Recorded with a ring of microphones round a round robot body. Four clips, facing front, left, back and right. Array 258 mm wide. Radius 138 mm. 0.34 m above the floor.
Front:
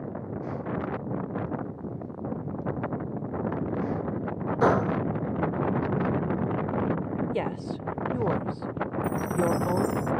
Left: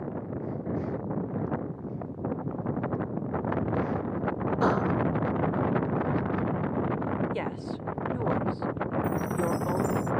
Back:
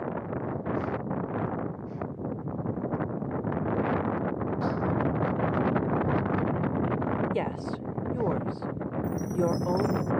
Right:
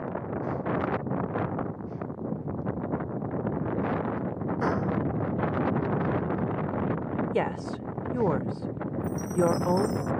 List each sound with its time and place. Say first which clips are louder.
4.6 s a gunshot: left 3 dB, front 9 dB; 15° left
7.3 s a woman speaking: right 4 dB, even; 90° right
9.0 s a chime: right 6 dB, front 1 dB; 15° left